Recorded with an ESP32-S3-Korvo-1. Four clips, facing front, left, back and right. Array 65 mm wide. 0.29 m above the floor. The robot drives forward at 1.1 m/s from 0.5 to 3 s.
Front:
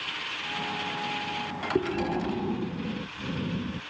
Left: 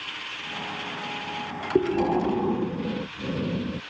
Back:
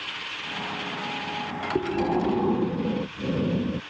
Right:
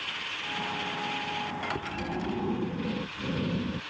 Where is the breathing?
90° left; by 3.8 s 160° left.